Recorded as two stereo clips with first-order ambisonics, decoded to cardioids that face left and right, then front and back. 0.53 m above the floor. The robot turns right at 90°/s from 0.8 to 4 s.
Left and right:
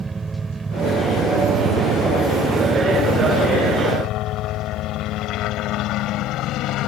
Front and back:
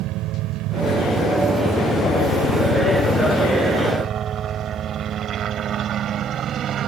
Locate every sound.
0.0 s a helicopter: 165° right; by 6.9 s 125° left